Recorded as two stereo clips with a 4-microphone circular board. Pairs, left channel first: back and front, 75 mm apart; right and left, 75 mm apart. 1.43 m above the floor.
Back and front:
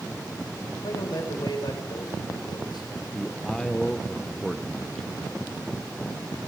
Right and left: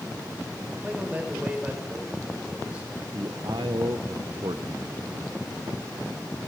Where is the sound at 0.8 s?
165° left, 5.5 m.